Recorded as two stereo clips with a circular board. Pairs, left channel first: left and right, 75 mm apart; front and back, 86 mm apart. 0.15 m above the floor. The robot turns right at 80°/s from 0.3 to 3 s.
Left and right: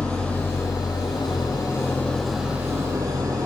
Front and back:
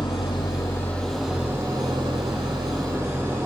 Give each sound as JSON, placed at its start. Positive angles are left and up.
{"t": 0.0, "sound": "an engine running", "azimuth_deg": 20, "distance_m": 5.0}